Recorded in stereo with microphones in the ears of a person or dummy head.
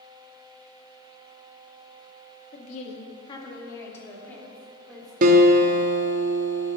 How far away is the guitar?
About 1.1 m.